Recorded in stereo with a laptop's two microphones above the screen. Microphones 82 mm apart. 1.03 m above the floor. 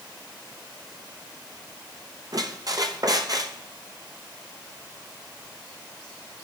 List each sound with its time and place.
2.3 s a squeak: 50° right (ahead or behind), 0.6 m